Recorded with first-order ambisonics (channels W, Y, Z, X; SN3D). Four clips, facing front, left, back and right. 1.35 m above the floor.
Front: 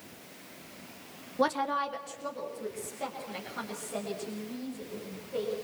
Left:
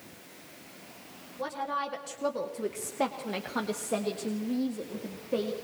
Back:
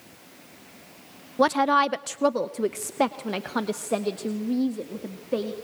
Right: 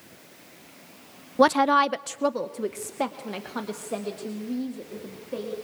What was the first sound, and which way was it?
A woman speaking, 110° right.